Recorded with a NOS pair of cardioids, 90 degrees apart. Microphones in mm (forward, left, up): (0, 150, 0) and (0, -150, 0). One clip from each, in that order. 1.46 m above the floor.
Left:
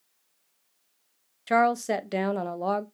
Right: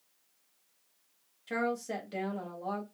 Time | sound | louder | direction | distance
1.5 | a woman speaking | left 11 dB | 55° left | 0.6 m